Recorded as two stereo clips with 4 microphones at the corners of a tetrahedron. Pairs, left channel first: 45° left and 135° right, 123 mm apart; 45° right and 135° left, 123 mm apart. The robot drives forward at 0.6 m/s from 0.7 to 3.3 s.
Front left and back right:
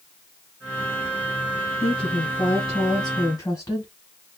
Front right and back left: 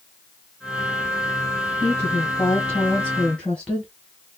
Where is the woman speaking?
10° left, 1.9 m; by 3.9 s 25° left, 1.4 m.